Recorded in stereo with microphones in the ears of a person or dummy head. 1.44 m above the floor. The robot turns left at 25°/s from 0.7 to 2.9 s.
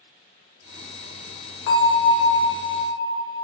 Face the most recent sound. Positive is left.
turn(degrees=90)